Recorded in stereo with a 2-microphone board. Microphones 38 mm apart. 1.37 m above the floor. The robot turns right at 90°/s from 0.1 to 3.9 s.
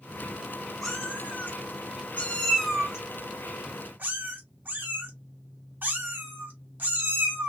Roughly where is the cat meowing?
Centre.